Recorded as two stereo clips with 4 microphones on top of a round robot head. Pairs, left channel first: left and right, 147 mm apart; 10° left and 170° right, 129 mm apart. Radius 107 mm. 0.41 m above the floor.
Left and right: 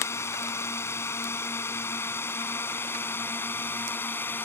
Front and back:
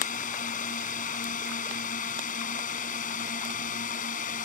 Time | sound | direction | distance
0.0 | a drone | 20° left | ?